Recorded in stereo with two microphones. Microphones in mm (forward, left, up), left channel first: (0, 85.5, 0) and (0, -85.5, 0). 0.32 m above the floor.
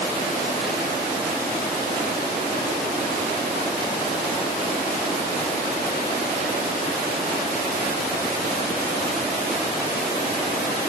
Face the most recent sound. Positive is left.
No sound to turn to.